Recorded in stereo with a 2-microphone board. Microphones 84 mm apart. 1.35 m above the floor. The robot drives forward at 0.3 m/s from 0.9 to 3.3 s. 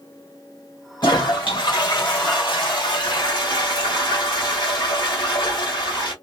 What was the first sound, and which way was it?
A toilet flushing, 70° left (ahead or behind).